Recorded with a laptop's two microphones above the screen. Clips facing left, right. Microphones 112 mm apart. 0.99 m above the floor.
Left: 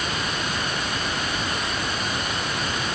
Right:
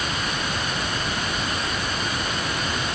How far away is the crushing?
I don't hear crushing.